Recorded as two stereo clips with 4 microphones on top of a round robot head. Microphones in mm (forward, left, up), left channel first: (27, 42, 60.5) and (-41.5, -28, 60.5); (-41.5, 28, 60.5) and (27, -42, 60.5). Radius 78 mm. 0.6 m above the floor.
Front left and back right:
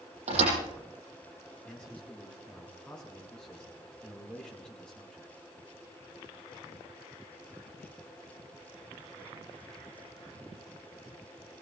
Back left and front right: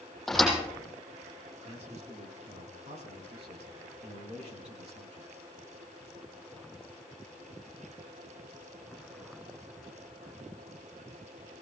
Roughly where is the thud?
Behind right.